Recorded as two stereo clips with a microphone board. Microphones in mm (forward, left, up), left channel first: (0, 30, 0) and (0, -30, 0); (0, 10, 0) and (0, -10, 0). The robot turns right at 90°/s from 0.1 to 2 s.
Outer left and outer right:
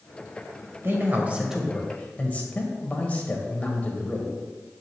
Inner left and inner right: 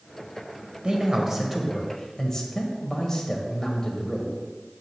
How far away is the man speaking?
About 1.3 m.